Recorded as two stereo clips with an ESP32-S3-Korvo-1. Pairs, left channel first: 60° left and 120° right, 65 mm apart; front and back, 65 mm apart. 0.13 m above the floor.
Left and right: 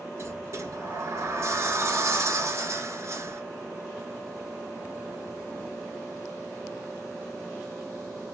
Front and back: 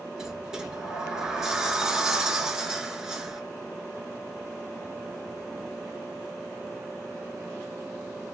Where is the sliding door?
105° right, 0.9 m.